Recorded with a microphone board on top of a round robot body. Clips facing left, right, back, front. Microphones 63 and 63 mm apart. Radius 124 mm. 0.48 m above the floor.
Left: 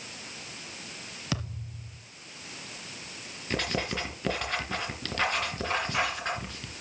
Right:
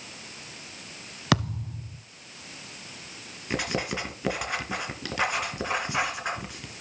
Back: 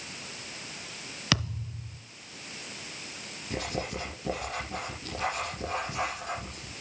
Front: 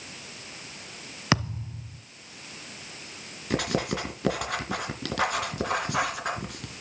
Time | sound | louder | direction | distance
1.3 | a thud | right 11 dB, front 4 dB | 60° right | 1.1 m
3.5 | writing | right 1 dB, front 6 dB | 10° right | 3 m